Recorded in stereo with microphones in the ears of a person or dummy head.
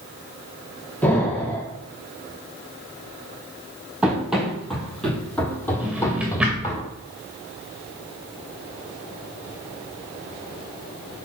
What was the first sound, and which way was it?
An explosion, 10° left (ahead or behind).